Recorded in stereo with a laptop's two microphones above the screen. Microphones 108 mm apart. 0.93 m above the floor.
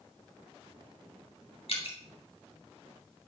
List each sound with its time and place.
1.7 s dripping: 55° left (ahead or behind), 2.5 m